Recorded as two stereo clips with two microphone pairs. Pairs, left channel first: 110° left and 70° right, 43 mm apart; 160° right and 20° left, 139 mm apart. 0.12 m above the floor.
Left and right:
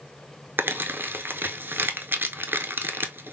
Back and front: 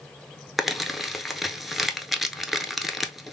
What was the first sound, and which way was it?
Crumpling, 70° right.